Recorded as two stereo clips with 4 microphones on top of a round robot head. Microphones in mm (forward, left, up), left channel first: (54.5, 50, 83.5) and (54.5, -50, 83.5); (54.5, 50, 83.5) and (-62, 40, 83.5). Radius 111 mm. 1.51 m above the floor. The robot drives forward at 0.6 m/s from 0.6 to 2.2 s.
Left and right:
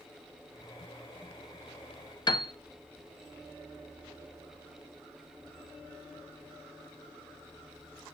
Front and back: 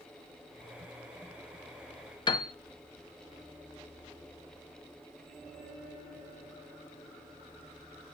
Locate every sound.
2.3 s a piano: 50° left, 0.6 m